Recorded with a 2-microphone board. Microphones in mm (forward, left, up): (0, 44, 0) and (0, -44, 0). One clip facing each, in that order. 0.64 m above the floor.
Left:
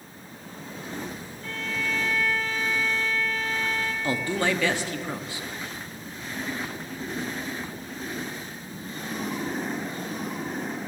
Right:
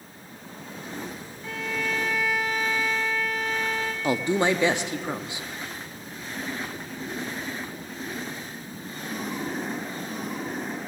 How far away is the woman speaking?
About 0.6 m.